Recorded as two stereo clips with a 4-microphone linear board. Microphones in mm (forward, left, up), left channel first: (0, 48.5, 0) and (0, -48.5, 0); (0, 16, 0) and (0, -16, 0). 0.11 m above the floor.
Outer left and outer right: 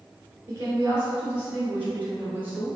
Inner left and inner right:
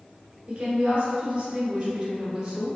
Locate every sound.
0.5 s a woman speaking: 25° right (ahead or behind), 1.4 m; by 2.8 s 15° right (ahead or behind), 1.8 m